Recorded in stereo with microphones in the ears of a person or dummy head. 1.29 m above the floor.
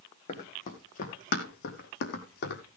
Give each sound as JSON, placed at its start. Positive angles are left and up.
{"t": 0.3, "sound": "running footsteps", "side_deg": 40, "distance_m": 3.5}